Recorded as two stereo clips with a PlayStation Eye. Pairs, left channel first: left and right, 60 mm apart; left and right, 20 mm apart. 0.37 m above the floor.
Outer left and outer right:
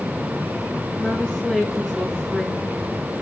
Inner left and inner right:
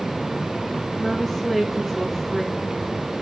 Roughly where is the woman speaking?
Centre.